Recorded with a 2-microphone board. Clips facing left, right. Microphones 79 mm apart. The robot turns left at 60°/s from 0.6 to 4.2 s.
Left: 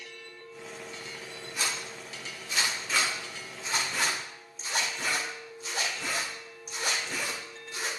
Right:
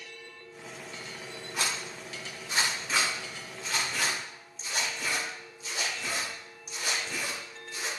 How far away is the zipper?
About 1.8 m.